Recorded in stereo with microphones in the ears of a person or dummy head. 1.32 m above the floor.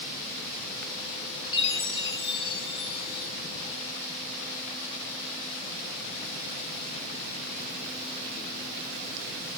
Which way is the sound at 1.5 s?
30° left (ahead or behind).